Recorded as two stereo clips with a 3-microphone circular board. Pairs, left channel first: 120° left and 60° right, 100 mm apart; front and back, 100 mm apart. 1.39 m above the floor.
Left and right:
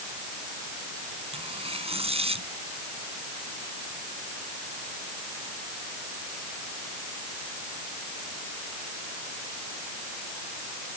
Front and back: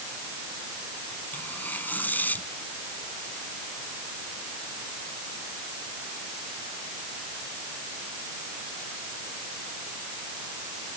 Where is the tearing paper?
75° right.